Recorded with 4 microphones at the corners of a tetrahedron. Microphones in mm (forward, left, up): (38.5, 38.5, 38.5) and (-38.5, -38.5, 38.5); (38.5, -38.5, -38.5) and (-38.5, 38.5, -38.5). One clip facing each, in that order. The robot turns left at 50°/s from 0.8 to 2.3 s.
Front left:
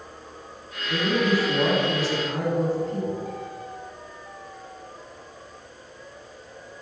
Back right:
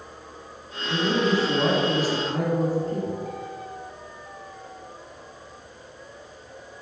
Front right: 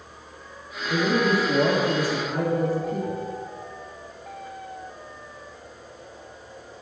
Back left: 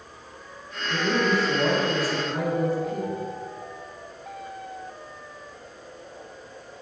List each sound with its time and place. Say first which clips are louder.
0.9 s a man speaking: even, front right 2 dB; 55° right, 1.5 m; by 3.2 s 125° right, 1.5 m